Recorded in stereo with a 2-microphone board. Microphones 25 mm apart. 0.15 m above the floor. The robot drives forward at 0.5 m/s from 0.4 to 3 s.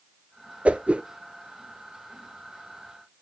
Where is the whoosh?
65° right (ahead or behind), 0.7 m; by 1.0 s 55° right (ahead or behind), 0.7 m.